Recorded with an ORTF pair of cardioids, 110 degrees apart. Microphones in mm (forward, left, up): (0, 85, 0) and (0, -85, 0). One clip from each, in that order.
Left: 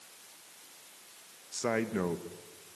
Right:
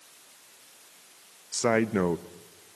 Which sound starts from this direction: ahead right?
A man speaking, at 1.5 s.